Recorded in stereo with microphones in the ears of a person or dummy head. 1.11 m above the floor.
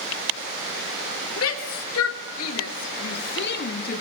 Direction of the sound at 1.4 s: 85° left.